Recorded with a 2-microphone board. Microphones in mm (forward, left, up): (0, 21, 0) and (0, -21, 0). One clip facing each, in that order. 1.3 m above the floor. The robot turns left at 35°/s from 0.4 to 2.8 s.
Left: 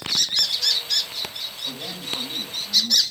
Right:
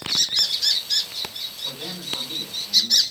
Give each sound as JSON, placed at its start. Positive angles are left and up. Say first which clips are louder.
{"t": 1.6, "sound": "a man speaking", "louder": "even", "azimuth_deg": -170, "distance_m": 7.5}